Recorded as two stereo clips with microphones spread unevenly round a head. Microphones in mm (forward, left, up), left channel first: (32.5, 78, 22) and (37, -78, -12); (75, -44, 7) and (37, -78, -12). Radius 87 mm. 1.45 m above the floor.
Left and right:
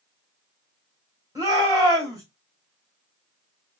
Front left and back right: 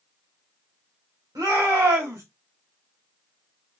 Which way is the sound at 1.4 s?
165° right.